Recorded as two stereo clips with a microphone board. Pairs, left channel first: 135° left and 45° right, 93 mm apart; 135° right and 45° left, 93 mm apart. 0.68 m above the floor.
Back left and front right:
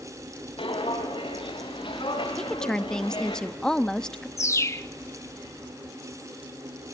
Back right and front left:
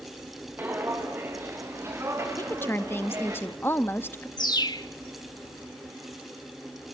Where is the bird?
170° right, 1.0 m.